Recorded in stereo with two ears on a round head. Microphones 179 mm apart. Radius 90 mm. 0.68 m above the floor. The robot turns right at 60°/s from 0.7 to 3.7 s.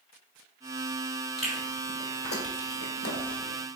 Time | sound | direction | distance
1.4 | chewing | 5° right (ahead or behind) | 1.3 m